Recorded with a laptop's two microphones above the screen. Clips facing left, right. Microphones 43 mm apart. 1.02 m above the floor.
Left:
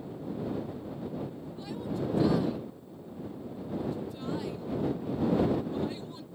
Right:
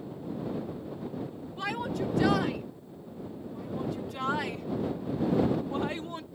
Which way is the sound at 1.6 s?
70° right (ahead or behind).